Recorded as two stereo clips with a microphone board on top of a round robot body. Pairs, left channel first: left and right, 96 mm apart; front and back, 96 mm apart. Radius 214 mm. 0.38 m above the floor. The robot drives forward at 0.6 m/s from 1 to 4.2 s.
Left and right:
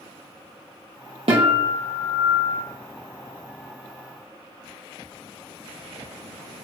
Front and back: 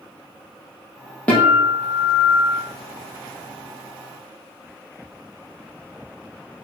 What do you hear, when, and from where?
1.3 s a guitar: 75° right, 3 m; by 2.6 s 90° right, 3 m